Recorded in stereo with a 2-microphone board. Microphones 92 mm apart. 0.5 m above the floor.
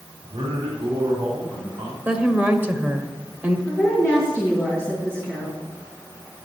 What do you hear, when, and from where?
0.2 s a man speaking: 75° right (ahead or behind), 2.5 m
2.0 s a woman speaking: 20° right (ahead or behind), 1.0 m
3.7 s a woman speaking: 25° right (ahead or behind), 5 m